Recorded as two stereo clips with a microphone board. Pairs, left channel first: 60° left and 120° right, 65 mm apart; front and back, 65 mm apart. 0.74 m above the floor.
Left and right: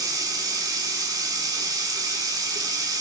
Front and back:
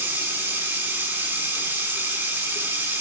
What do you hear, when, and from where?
0.0 s running water: 125° right, 2.0 m